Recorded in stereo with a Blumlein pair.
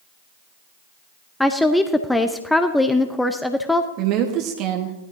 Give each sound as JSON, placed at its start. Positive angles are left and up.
{"t": 1.4, "sound": "a woman speaking", "azimuth_deg": 5, "distance_m": 0.8}
{"t": 4.0, "sound": "a woman speaking", "azimuth_deg": -40, "distance_m": 1.5}